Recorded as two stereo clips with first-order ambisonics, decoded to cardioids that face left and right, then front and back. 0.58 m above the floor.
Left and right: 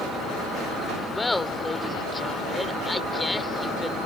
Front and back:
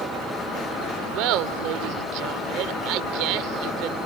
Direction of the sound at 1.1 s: 170° left.